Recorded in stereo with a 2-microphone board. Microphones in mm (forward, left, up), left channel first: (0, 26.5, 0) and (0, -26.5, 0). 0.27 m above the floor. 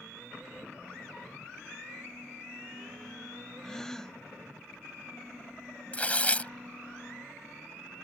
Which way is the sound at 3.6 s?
10° left (ahead or behind).